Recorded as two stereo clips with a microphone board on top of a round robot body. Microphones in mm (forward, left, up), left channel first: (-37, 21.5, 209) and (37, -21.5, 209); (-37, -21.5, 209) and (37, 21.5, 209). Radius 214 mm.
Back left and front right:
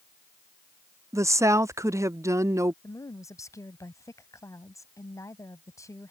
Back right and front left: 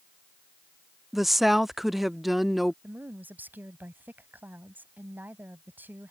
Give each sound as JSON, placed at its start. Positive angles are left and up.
{"t": 1.1, "sound": "a woman speaking", "azimuth_deg": -55}
{"t": 2.8, "sound": "a woman speaking", "azimuth_deg": 100}